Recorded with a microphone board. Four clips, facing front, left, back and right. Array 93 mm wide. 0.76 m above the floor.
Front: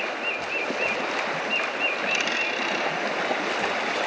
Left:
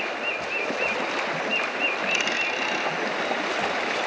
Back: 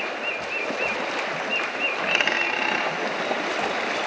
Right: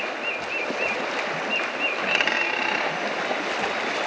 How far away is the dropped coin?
About 0.5 m.